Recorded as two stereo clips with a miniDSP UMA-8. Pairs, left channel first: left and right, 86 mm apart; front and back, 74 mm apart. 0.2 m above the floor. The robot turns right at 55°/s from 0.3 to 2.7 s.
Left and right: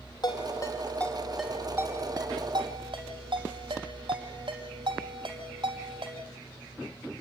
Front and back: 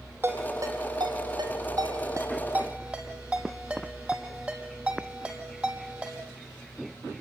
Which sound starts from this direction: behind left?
A ringtone, at 0.2 s.